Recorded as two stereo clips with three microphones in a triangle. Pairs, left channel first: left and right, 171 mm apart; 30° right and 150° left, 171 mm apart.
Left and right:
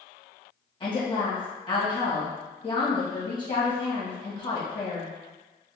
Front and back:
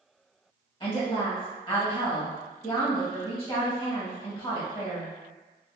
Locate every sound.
0.8 s a woman speaking: 30° left, 1.7 m